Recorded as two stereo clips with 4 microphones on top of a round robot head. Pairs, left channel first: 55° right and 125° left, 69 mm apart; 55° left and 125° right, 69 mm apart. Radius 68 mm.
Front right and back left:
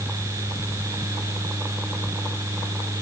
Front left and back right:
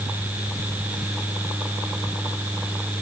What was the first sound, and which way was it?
Only background noise.